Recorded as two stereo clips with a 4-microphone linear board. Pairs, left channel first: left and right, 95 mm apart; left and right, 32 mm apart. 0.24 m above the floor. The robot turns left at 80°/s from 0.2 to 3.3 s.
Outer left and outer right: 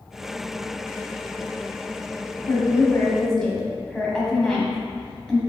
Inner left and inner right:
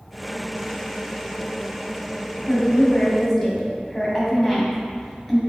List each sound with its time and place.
2.5 s a woman speaking: 75° left, 1.2 m; by 5.4 s 10° left, 1.2 m